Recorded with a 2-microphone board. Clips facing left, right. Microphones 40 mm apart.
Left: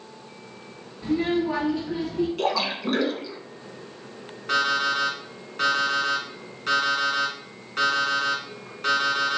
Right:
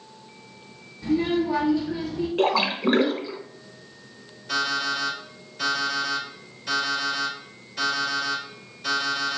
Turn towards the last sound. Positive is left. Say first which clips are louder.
# left 3 dB
turn(degrees=65)  # may be behind; listen again after turning